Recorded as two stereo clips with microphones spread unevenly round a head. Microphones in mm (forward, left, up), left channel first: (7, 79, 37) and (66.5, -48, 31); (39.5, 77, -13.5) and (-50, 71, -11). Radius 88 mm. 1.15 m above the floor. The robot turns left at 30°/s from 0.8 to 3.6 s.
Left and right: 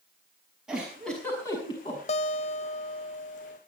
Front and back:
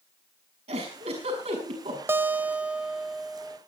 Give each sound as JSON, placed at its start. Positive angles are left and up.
{"t": 0.7, "sound": "a giggle", "azimuth_deg": -150, "distance_m": 6.0}
{"t": 2.1, "sound": "a guitar", "azimuth_deg": 135, "distance_m": 0.5}